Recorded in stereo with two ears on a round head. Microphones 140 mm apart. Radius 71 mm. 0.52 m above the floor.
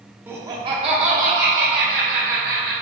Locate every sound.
0.3 s laughter: 15° right (ahead or behind), 0.8 m; by 2.7 s 70° right (ahead or behind), 2 m